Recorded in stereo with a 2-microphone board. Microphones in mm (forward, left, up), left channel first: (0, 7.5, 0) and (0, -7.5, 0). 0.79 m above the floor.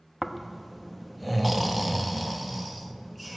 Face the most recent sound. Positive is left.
turn(degrees=-5)  # may be behind; listen again after turning